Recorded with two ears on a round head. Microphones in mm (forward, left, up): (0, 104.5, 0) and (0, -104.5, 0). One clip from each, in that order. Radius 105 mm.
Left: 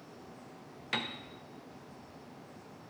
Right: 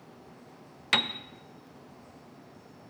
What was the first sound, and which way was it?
A piano, 35° right (ahead or behind).